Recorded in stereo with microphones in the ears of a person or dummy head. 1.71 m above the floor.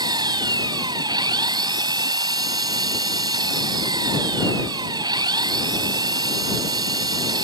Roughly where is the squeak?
I don't hear a squeak.